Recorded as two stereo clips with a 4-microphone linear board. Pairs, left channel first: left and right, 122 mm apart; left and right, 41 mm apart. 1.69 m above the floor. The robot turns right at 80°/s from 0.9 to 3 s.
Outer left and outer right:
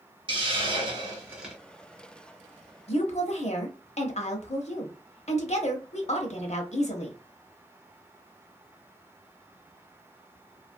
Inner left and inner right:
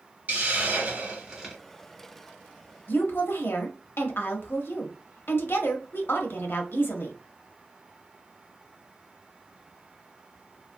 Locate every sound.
0.3 s a hiss: 50° right, 1.2 m; by 1.6 s straight ahead, 1.2 m
2.9 s a woman speaking: 55° left (ahead or behind), 0.8 m; by 7.2 s 65° left (ahead or behind), 0.8 m